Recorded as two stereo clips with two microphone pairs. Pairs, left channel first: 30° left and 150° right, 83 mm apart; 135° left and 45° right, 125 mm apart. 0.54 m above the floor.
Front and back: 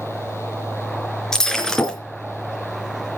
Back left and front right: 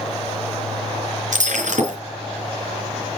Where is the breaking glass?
55° right, 4 m.